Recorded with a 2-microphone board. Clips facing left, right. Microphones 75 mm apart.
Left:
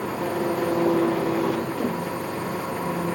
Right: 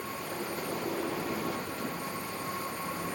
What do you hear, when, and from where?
0.0 s an engine running: 85° left